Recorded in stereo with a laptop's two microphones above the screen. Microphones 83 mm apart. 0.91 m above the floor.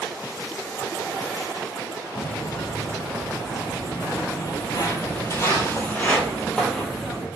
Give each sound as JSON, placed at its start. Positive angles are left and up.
{"t": 2.1, "sound": "footsteps", "side_deg": 60, "distance_m": 2.0}